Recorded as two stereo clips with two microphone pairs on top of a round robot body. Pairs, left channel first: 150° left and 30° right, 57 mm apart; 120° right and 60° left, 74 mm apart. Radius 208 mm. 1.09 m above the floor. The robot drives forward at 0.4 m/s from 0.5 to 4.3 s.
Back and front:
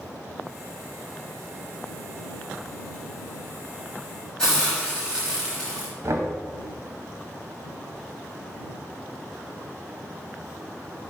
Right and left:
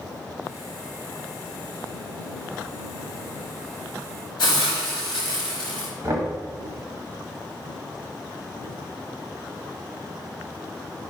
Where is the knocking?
10° left, 1.1 m.